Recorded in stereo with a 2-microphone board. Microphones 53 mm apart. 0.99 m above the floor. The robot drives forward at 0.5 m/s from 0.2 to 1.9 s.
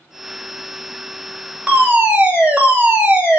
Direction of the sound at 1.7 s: 20° right (ahead or behind).